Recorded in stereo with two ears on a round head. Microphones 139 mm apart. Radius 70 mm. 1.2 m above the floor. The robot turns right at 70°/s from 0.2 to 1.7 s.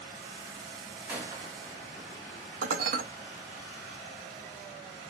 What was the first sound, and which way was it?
A gunshot, 10° right (ahead or behind).